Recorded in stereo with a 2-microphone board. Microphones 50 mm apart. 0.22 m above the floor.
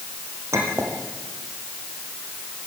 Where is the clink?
80° right, 5.5 m.